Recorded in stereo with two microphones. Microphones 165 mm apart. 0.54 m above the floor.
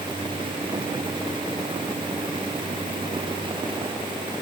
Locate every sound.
Only background noise.